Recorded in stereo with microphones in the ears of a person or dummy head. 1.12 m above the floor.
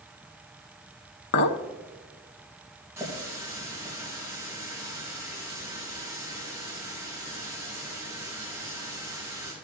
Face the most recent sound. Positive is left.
turn(degrees=-15)  # may be behind; listen again after turning